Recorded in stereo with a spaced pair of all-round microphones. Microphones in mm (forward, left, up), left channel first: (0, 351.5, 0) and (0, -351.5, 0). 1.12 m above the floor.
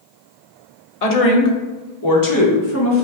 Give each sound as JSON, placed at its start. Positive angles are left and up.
{"t": 1.0, "sound": "a woman speaking", "side_deg": 60, "distance_m": 0.8}